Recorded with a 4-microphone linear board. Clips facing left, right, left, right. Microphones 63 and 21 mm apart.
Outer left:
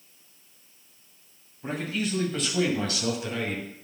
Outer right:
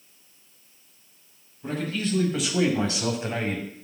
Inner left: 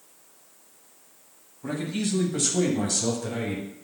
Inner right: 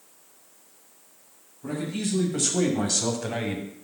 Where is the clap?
No clap in this recording.